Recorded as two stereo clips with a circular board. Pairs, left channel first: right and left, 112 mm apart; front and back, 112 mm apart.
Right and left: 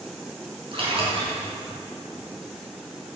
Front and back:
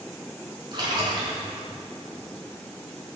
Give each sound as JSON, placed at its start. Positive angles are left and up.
{"t": 0.7, "sound": "a splash", "azimuth_deg": 130, "distance_m": 5.5}